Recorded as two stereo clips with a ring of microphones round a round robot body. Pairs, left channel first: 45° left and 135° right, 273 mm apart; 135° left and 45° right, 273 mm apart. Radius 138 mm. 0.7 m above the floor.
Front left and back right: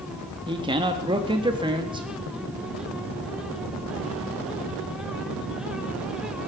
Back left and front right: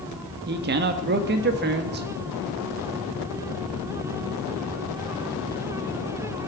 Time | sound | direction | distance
0.5 | a man speaking | 70° right | 1.3 m